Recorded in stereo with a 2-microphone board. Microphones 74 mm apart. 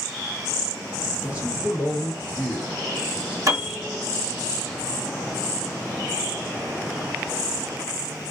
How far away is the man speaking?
About 1.7 m.